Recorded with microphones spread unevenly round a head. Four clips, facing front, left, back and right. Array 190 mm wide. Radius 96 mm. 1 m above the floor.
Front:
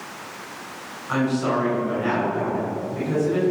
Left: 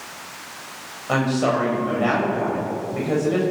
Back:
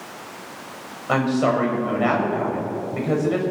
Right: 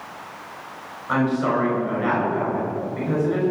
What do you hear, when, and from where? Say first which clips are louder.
1.1 s a woman speaking: even, back 3 dB; 160° left, 6 m